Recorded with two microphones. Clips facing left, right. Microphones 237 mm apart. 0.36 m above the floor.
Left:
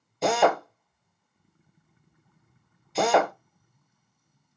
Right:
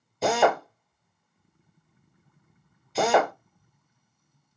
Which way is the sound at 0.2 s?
Centre (ahead or behind).